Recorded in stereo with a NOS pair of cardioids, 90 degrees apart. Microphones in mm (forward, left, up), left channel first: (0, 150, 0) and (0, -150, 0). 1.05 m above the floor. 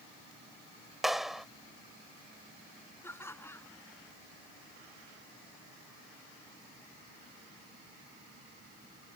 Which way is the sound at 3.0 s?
10° left.